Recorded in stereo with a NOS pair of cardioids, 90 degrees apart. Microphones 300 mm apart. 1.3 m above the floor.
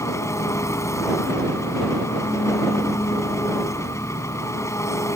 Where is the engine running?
10° left.